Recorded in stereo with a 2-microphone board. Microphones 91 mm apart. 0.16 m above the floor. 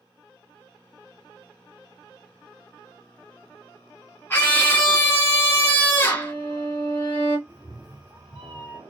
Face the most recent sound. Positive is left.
turn(degrees=-15)  # may be behind; listen again after turning